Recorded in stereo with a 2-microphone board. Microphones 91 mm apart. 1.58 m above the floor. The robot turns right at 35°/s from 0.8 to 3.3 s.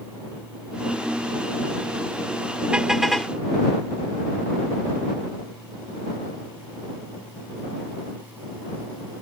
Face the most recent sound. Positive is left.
turn(degrees=10)  # may be behind; listen again after turning